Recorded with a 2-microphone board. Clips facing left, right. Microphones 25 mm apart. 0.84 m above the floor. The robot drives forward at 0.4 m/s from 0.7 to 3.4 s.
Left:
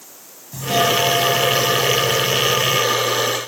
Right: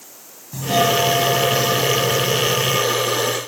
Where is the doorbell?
5° right (ahead or behind).